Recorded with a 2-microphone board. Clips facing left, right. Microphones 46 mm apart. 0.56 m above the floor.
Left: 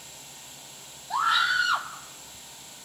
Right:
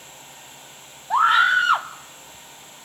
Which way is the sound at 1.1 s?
40° right (ahead or behind).